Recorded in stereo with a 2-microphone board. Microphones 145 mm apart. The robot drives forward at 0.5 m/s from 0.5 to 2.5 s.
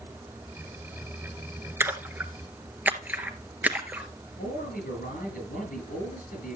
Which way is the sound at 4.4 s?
75° left (ahead or behind).